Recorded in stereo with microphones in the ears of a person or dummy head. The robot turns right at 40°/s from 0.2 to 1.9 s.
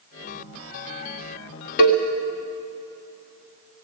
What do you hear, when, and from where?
1.8 s a cowbell: 55° left (ahead or behind), 1.9 m; by 2.0 s 60° left (ahead or behind), 1.9 m